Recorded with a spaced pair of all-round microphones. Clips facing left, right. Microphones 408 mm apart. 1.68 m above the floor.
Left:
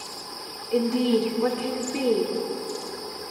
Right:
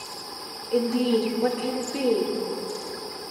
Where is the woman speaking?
15° left (ahead or behind), 0.6 m.